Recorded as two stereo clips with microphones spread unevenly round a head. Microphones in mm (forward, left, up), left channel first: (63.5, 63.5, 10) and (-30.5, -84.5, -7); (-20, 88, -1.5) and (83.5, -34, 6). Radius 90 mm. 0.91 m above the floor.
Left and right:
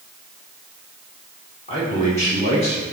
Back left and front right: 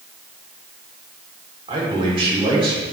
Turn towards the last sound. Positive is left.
turn(degrees=5)